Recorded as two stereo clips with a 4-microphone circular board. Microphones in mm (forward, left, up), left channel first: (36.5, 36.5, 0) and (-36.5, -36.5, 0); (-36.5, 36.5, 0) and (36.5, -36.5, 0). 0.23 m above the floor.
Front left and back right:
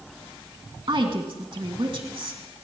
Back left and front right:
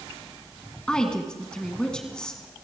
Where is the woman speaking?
145° right, 2 m.